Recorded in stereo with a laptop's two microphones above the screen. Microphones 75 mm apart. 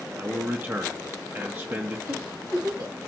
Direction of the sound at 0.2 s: 30° right (ahead or behind).